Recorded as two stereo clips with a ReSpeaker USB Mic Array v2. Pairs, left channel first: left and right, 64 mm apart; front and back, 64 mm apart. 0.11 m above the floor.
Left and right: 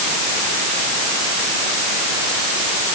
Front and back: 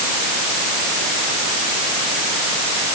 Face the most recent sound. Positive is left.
No sound to turn to.